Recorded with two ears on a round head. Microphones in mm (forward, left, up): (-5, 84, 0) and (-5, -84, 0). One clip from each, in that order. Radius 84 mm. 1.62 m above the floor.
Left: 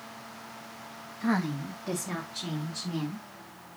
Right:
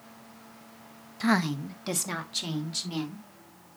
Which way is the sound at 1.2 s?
85° right.